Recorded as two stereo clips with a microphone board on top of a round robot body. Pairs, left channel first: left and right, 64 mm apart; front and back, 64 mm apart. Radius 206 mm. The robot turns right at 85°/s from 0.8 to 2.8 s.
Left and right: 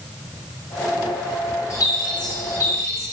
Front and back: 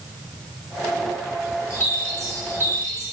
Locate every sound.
1.7 s a bird: 50° left, 1.9 m; by 3.0 s 140° left, 1.9 m